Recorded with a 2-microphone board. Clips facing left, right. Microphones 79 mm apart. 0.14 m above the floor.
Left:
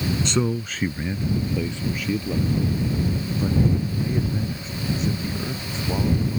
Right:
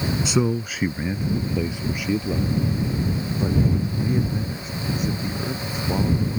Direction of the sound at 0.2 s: 5° right (ahead or behind).